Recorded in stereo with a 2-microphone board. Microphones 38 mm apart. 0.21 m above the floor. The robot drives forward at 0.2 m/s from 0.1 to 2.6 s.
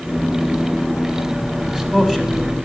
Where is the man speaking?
10° right (ahead or behind), 1.0 m.